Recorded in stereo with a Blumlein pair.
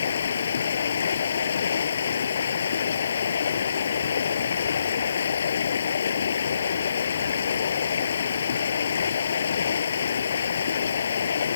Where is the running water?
70° left.